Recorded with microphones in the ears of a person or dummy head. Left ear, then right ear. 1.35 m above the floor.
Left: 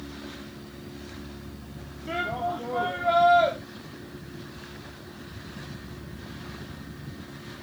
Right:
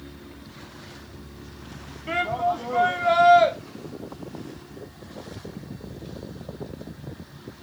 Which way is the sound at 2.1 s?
40° right (ahead or behind).